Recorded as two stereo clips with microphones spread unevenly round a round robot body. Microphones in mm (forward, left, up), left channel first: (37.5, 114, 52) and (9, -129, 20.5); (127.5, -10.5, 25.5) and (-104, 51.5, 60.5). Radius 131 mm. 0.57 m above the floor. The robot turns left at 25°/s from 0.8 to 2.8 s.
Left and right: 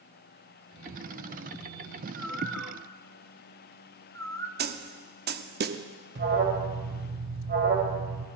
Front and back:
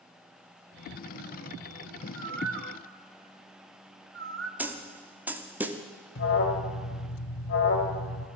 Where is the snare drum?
105° right, 0.8 m.